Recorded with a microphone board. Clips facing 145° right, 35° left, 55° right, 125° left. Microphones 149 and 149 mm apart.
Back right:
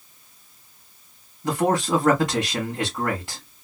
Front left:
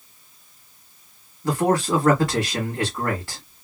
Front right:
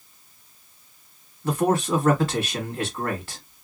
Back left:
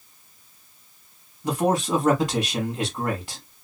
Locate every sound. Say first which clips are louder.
1.4 s a man speaking: front left 1 dB, front right 1 dB; 175° left, 1.5 m